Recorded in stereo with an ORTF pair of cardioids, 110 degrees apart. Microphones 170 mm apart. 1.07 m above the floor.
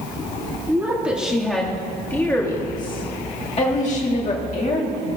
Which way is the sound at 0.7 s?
10° right.